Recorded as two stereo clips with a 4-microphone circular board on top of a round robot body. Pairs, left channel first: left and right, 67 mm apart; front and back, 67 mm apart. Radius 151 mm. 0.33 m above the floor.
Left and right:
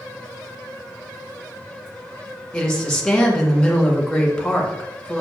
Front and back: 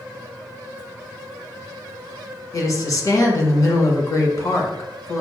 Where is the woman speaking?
10° left, 1.5 m.